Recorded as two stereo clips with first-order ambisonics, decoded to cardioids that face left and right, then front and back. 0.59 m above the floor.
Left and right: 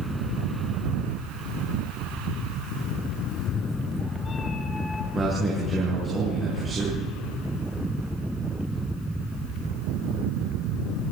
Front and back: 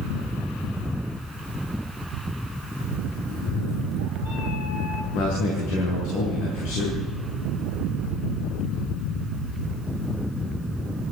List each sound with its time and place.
3.3 s a cat meowing: 40° left, 1.5 m; by 5.0 s 20° left, 2.5 m
5.1 s a man speaking: 15° right, 7.5 m